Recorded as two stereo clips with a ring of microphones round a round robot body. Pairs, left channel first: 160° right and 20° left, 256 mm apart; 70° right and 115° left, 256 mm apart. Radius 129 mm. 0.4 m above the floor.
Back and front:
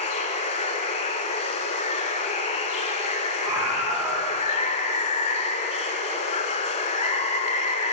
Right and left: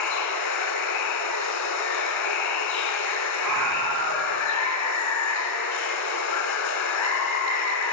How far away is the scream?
About 2.5 m.